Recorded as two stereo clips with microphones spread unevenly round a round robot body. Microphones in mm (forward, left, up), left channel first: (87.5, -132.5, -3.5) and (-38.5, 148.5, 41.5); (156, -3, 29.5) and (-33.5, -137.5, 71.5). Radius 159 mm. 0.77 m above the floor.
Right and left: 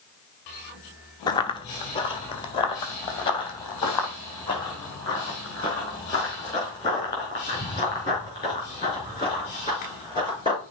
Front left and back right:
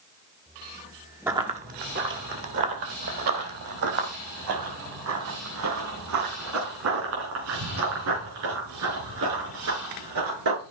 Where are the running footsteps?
145° right, 0.7 m.